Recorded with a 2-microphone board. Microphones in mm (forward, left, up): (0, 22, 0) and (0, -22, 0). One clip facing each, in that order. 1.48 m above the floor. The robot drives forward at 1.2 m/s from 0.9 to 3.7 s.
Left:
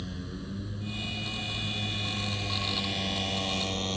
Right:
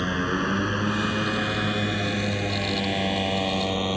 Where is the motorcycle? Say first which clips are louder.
Right 15 dB; 70° right (ahead or behind); by 4.0 s 25° right (ahead or behind).